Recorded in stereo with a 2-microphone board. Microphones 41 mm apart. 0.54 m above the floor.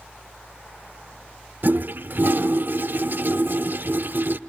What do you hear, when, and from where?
1.6 s a toilet flushing: 55° right (ahead or behind), 0.7 m